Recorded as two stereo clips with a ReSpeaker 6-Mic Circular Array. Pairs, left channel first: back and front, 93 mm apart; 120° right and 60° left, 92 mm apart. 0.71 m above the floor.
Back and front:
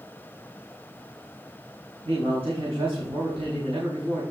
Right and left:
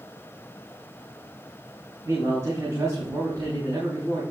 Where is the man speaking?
Straight ahead, 4.5 m.